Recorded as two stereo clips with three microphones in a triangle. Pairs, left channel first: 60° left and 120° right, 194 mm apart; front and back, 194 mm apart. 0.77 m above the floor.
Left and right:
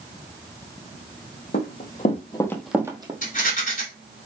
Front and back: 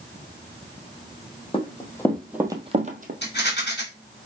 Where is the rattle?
20° left, 2.5 m.